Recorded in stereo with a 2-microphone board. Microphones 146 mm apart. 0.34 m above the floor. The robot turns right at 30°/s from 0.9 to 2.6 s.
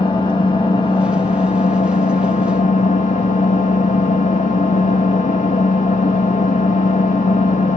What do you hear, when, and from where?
0.0 s an engine running: 40° left, 0.8 m; by 7.8 s 90° left, 0.8 m